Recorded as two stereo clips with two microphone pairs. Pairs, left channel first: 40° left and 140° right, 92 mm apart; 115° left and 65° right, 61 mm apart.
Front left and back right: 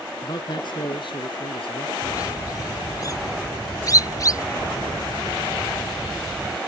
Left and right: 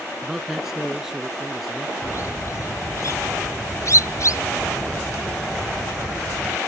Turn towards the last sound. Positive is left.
turn(degrees=90)